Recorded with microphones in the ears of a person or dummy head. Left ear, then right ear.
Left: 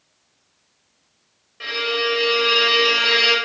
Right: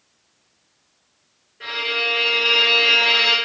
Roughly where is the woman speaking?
No woman speaking in this recording.